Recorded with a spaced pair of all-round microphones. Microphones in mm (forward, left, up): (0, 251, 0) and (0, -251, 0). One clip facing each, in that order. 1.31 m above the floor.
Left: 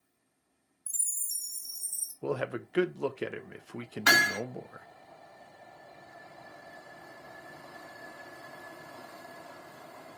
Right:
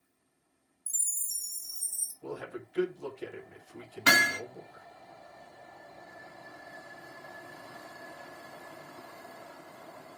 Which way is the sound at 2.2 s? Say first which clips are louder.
Left 7 dB; 85° left.